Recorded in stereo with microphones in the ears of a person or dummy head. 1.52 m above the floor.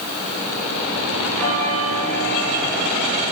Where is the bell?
10° left (ahead or behind), 1.4 m.